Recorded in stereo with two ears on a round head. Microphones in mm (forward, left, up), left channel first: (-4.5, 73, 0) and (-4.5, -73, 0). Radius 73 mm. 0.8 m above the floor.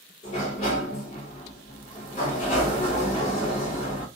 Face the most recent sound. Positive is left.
turn(degrees=40)  # may be behind; listen again after turning